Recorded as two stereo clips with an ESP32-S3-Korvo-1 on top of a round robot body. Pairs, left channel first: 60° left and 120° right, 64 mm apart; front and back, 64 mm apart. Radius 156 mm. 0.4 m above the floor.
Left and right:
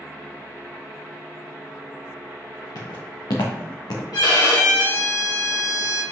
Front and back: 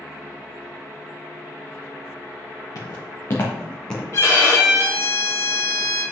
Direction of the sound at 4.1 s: 45° left.